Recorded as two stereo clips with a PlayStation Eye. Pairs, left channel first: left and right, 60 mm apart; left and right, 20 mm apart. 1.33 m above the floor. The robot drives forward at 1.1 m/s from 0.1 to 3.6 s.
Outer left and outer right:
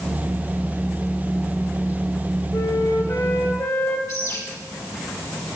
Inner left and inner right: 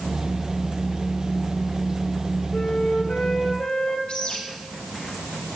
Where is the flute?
65° left (ahead or behind), 1.5 m; by 4.0 s 45° left (ahead or behind), 1.9 m.